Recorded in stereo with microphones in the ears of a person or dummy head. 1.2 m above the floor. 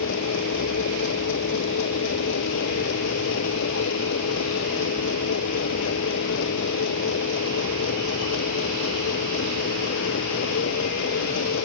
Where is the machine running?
65° left (ahead or behind).